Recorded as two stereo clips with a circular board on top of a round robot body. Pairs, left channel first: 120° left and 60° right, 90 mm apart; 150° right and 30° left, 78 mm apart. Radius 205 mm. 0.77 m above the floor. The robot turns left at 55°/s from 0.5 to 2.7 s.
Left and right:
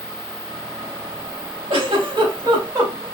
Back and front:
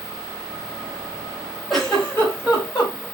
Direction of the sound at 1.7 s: 65° right.